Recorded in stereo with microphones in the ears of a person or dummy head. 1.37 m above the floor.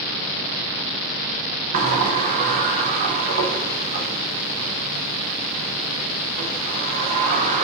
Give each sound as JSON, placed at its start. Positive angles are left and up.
{"t": 1.7, "sound": "a sliding door", "side_deg": -45, "distance_m": 0.6}